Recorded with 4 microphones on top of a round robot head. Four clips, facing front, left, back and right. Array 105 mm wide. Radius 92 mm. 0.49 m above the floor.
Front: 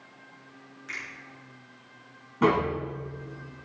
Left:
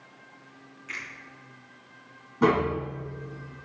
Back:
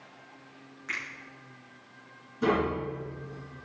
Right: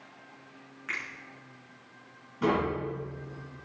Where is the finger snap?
115° right, 6 m.